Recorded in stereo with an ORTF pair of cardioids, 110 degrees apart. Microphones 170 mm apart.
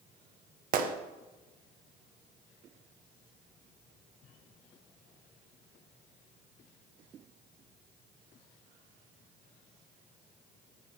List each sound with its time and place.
0.7 s a gunshot: 60° right, 0.6 m